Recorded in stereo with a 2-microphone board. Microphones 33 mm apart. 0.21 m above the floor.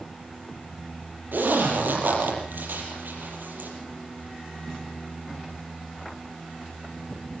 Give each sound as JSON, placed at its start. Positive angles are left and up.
{"t": 1.3, "sound": "a zipper", "side_deg": -80, "distance_m": 6.0}